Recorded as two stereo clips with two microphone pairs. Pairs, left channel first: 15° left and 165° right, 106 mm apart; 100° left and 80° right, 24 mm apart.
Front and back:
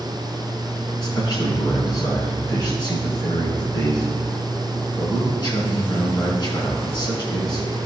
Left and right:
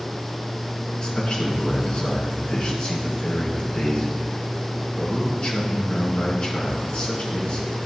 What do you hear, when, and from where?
1.0 s a man speaking: 55° left, 3 m